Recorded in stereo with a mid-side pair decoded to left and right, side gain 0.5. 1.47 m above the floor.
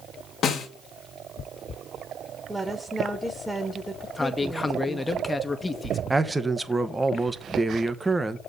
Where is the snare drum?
60° left, 2.0 m.